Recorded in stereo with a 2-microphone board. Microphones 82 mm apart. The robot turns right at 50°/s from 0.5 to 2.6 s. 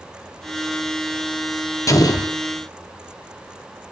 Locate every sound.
1.9 s an explosion: 40° left (ahead or behind), 0.6 m; by 2.4 s 60° left (ahead or behind), 0.6 m